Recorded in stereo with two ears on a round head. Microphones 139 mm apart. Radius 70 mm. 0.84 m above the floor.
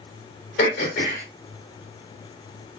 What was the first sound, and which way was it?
Throat clearing, 70° left (ahead or behind).